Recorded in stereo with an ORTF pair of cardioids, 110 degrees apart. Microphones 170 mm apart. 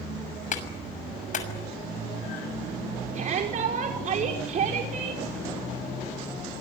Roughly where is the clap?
Ahead left.